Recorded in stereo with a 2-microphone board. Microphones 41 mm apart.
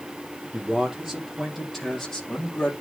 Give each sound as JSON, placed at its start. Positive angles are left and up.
{"t": 0.5, "sound": "a man speaking", "side_deg": -20, "distance_m": 3.0}